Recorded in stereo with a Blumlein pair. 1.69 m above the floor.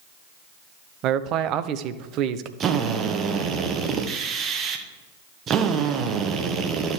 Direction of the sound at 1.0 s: 35° right.